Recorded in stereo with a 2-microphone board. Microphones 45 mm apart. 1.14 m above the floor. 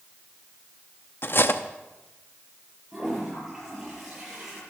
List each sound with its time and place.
1.2 s cutlery clinking: 50° left (ahead or behind), 0.7 m
2.9 s a toilet flushing: 10° right (ahead or behind), 8.5 m